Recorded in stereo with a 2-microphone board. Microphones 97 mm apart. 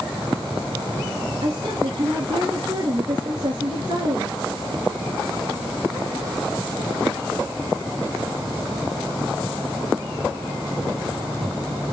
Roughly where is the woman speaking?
Right.